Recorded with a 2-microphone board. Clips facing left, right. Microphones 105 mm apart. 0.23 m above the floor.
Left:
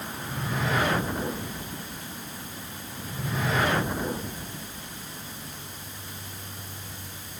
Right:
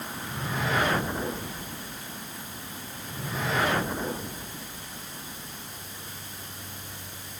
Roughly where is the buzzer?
I don't hear a buzzer.